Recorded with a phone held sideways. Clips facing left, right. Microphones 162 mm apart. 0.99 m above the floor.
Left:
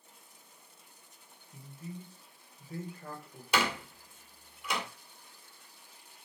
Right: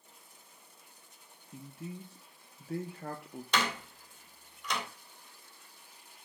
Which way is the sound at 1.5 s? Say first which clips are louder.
Right 2 dB; 65° right (ahead or behind).